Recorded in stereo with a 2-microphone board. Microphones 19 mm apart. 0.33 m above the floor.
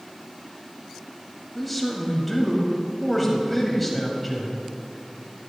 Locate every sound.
1.6 s a man speaking: 5° left (ahead or behind), 1.8 m